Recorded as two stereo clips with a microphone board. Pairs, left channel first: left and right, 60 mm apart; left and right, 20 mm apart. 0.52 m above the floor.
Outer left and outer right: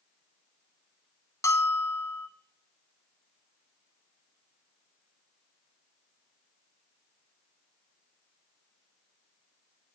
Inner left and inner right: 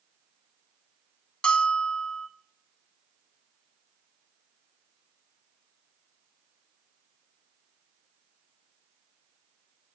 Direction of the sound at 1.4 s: 60° left (ahead or behind).